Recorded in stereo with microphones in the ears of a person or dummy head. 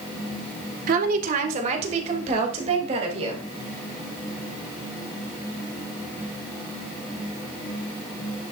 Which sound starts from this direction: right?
A woman speaking, at 0.9 s.